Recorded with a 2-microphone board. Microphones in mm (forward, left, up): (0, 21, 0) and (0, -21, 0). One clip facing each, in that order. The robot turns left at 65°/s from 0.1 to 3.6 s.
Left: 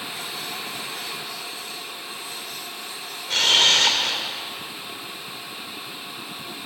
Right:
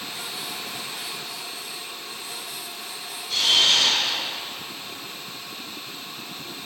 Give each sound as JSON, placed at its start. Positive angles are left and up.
{"t": 3.3, "sound": "a camera shutter", "side_deg": 55, "distance_m": 2.0}